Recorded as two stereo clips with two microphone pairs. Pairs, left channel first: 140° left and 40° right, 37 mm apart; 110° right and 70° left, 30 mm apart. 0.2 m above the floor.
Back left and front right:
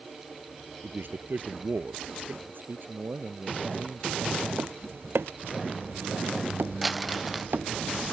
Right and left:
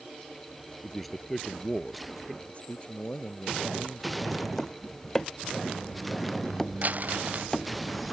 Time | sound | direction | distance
0.8 | a man speaking | 20° right | ?
2.5 | a man speaking | 60° right | ?
4.6 | tapping | 30° right | ?
6.8 | crumpling | 50° left | ?